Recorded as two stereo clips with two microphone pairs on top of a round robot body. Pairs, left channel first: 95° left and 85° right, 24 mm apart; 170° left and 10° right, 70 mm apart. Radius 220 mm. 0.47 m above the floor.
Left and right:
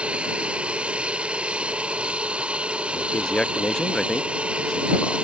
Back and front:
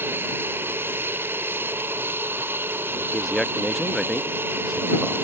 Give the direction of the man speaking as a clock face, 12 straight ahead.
10 o'clock.